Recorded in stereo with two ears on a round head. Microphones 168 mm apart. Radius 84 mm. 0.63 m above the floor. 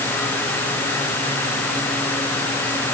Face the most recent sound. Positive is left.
No sound to turn to.